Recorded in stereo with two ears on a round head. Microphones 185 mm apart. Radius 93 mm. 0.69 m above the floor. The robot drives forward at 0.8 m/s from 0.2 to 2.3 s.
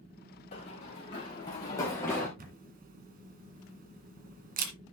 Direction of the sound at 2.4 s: 45° right (ahead or behind).